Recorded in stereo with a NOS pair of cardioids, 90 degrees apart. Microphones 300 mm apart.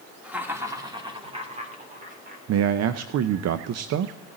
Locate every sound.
0.2 s laughter: 5° right, 2.5 m; by 2.4 s 30° right, 3.5 m
2.5 s a man speaking: 60° right, 0.6 m